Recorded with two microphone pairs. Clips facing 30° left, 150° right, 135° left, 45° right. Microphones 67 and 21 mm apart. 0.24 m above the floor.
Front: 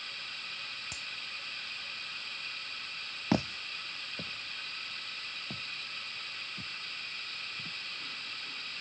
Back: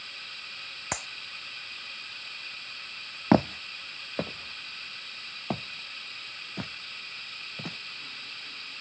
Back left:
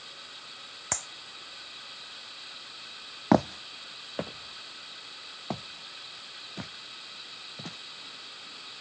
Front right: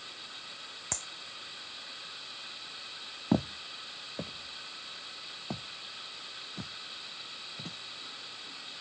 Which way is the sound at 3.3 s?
160° left.